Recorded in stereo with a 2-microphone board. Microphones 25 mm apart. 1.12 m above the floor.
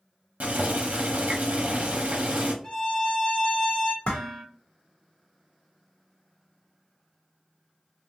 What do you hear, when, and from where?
0.4 s boiling: 70° right (ahead or behind), 0.8 m
2.6 s a violin: 20° left (ahead or behind), 0.6 m
4.0 s dishes clattering: 50° left (ahead or behind), 0.9 m